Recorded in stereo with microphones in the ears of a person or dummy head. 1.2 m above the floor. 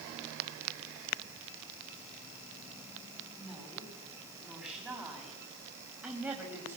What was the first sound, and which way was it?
A woman speaking, centre (ahead or behind).